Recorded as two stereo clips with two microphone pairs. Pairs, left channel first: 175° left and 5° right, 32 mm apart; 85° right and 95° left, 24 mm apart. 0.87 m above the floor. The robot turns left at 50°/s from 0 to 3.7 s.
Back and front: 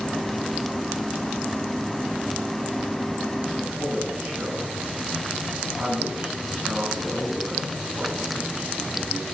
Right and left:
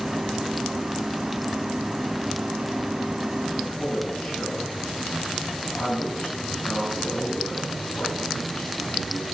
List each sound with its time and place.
3.5 s a man speaking: 45° right, 9 m; by 9.2 s 55° right, 9 m